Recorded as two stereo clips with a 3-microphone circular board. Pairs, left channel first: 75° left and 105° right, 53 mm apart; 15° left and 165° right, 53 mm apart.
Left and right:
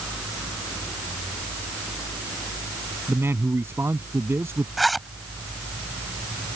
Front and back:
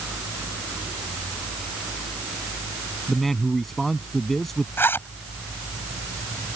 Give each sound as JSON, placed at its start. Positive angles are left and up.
{"t": 3.1, "sound": "a man speaking", "azimuth_deg": -70}
{"t": 4.8, "sound": "a zipper", "azimuth_deg": -15}